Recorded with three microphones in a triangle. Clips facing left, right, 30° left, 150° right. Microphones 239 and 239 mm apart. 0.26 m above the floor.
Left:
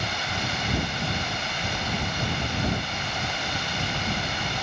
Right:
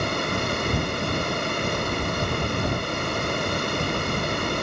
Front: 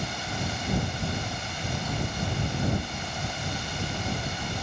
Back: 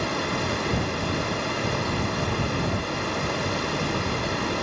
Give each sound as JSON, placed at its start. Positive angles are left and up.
{"t": 0.0, "sound": "running water", "azimuth_deg": -125}